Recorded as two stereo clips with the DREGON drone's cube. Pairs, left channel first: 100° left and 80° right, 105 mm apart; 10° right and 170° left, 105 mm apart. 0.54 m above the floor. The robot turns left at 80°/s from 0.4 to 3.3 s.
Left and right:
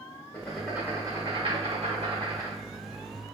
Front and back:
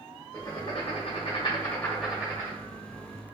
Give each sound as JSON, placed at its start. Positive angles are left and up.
{"t": 0.3, "sound": "writing", "azimuth_deg": 35, "distance_m": 1.3}